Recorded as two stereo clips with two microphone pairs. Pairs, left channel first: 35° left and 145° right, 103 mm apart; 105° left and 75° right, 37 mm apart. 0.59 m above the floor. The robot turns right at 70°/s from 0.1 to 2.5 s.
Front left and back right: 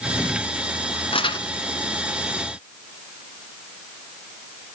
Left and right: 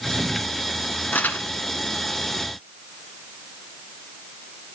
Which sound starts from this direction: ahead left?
Crumpling, at 1.1 s.